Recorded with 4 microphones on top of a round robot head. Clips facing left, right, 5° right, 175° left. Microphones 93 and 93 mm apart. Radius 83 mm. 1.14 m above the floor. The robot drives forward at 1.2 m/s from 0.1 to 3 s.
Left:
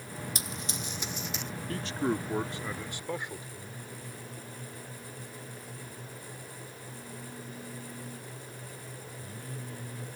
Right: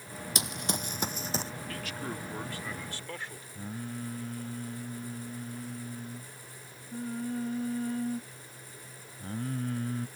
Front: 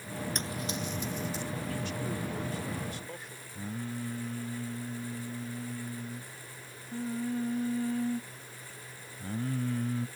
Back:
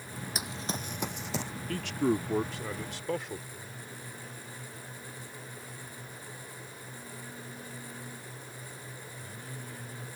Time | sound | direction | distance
0.3 | running footsteps | 100° right | ?
1.7 | a man speaking | 150° left | ?
3.5 | singing | 40° right | ?